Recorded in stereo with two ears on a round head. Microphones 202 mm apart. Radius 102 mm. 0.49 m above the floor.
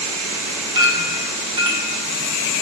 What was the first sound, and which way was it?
A clink, 20° right (ahead or behind).